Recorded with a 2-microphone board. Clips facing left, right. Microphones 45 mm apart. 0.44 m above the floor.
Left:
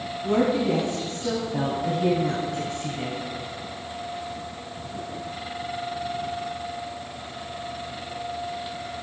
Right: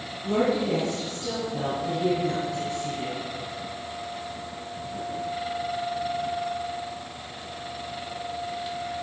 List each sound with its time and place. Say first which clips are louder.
0.2 s a woman speaking: left 2 dB; 25° left (ahead or behind), 4 m; by 3.2 s 50° left (ahead or behind), 2.5 m